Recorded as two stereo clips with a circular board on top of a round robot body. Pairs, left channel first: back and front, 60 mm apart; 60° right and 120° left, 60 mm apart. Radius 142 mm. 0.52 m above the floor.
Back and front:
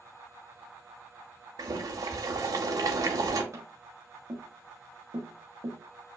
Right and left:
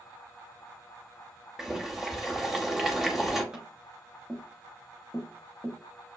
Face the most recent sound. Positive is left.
turn(degrees=40)